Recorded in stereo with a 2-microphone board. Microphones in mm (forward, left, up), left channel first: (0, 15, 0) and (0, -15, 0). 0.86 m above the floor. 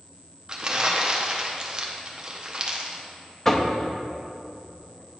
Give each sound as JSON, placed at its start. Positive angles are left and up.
{"t": 0.5, "sound": "crumpling", "side_deg": -30, "distance_m": 0.7}
{"t": 3.5, "sound": "knocking", "side_deg": 15, "distance_m": 0.6}